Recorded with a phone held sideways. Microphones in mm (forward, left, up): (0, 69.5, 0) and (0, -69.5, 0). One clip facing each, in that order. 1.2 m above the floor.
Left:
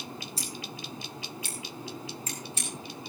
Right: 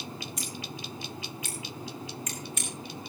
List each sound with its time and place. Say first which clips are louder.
0.4 s scissors: right 1 dB; 30° left (ahead or behind), 5.5 m